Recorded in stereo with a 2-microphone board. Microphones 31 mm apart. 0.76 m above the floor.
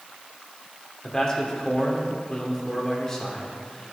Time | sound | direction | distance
1.0 | a man speaking | 20° left (ahead or behind) | 2.5 m